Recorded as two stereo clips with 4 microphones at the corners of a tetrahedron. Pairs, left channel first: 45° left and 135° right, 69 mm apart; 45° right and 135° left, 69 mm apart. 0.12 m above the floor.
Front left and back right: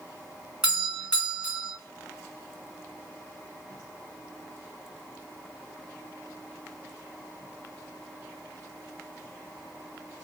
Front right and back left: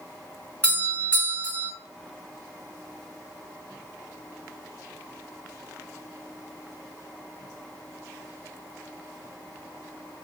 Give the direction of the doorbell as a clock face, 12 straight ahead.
3 o'clock.